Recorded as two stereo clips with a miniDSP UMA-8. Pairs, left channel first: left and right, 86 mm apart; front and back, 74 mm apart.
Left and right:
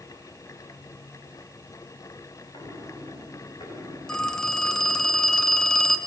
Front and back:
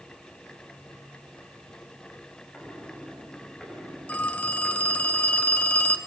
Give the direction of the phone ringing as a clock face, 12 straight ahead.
11 o'clock.